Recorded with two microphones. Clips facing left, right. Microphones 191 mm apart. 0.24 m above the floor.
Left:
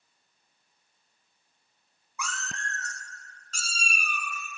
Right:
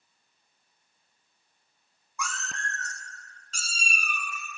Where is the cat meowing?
5° left (ahead or behind), 0.9 m; by 4.6 s 45° left (ahead or behind), 0.8 m.